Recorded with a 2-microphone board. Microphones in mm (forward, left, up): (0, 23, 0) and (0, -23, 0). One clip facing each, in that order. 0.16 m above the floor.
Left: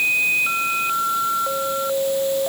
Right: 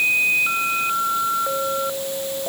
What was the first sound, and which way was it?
Only background noise.